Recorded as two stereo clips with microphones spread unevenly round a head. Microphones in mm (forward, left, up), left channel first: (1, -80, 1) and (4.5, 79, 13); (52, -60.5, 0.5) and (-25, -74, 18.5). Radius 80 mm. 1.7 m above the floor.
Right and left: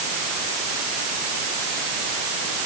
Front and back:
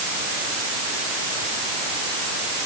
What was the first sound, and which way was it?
Only background noise.